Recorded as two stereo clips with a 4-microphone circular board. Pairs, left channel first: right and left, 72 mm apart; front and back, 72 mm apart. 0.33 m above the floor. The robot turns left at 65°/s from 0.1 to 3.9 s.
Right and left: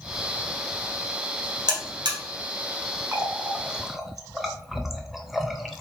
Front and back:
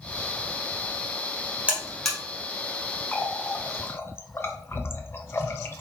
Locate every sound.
1.7 s a buzzer: 110° left, 1.6 m; by 2.2 s 80° left, 1.6 m
3.1 s a running tap: 55° left, 0.6 m; by 5.8 s 5° left, 0.6 m